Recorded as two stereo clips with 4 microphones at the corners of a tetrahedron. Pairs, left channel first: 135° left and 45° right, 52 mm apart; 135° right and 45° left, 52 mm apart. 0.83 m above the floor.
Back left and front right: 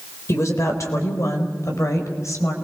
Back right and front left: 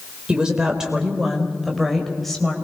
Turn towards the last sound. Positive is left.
turn(degrees=145)